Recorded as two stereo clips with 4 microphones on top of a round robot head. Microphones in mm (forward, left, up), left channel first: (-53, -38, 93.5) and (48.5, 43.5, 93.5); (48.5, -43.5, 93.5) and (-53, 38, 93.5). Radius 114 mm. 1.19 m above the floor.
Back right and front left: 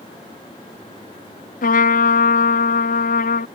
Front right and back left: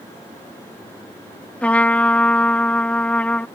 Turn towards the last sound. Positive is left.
turn(degrees=-120)